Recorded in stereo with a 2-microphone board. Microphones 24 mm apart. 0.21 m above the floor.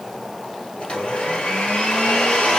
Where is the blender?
55° left (ahead or behind), 2 m.